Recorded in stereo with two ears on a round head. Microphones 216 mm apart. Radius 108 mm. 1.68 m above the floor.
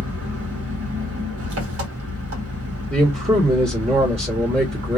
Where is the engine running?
55° right (ahead or behind), 1.3 m.